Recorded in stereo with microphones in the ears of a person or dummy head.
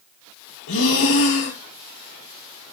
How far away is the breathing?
About 1.5 m.